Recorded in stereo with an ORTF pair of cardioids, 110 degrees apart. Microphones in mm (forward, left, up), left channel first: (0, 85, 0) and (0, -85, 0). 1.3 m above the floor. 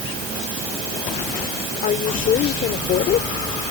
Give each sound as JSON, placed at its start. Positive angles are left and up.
{"t": 1.8, "sound": "a woman speaking", "azimuth_deg": 55}